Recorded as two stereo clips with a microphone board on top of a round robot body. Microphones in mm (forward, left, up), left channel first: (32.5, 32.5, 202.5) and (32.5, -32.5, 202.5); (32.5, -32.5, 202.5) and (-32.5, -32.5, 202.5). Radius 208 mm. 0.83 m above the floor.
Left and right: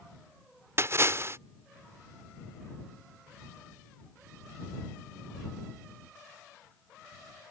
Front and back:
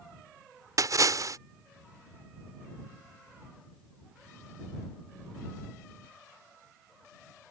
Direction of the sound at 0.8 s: 145° right.